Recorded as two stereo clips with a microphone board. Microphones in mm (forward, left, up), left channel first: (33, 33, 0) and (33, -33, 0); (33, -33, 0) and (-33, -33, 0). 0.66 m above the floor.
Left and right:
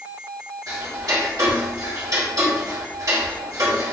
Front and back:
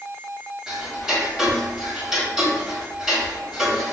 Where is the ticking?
95° right, 1.9 m.